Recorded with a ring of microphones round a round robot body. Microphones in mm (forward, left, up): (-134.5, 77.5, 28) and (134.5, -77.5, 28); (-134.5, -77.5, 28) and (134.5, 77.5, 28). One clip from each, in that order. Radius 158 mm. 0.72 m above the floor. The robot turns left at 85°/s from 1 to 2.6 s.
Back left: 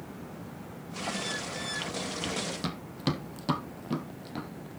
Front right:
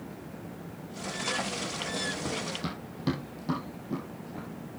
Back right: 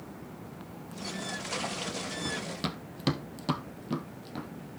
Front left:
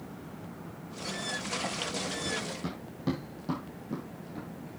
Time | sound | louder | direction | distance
2.2 | running footsteps | back left 1 dB, even | 95° right | 1.4 m